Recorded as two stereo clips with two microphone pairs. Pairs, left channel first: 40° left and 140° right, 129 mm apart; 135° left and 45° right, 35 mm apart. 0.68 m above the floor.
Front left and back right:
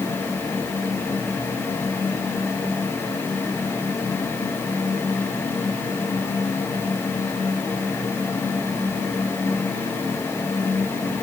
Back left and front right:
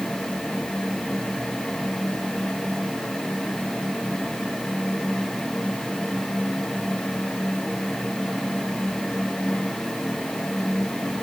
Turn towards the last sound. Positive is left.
No sound to turn to.